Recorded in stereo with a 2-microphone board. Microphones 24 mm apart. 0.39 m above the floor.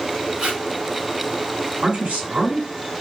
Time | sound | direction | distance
0.4 | tape being pulled | 55° right (ahead or behind) | 1.8 m
1.8 | a man speaking | 70° right (ahead or behind) | 2 m